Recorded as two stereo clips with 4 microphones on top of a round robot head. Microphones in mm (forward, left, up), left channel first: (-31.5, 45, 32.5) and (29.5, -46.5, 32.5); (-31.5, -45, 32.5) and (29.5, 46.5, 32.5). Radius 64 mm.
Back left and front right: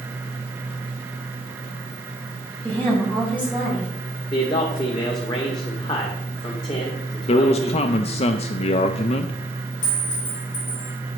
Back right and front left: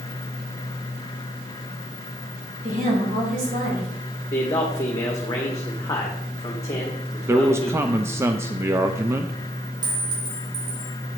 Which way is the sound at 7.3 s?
120° left.